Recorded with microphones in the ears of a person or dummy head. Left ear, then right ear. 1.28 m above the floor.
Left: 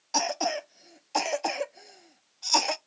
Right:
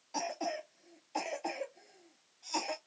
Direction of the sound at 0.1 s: 50° left (ahead or behind).